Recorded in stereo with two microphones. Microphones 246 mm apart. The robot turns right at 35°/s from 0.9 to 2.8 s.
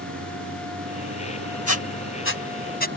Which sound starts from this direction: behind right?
A vehicle, at 0.0 s.